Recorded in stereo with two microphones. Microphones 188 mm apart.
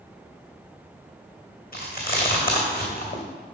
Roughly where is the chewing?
Left.